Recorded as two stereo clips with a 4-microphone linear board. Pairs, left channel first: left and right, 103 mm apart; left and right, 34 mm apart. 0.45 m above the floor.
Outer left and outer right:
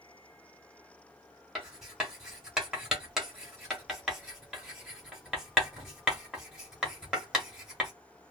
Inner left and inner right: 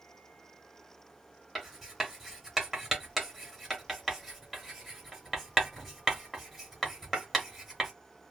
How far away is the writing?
About 1.1 m.